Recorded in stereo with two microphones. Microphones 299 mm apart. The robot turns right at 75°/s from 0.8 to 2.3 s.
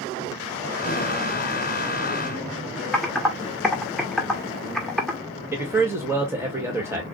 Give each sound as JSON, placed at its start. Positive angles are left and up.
{"t": 2.9, "sound": "typing on a keyboard", "side_deg": 0, "distance_m": 1.6}
{"t": 5.5, "sound": "a man speaking", "side_deg": -10, "distance_m": 1.8}